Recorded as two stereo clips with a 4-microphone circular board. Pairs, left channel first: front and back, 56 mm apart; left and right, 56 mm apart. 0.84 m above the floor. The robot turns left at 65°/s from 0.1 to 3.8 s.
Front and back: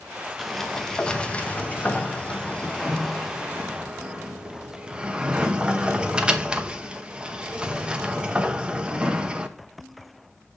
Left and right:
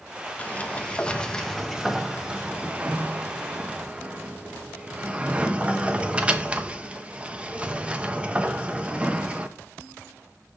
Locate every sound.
0.4 s a sliding door: 90° left, 0.7 m; by 9.6 s 130° right, 0.7 m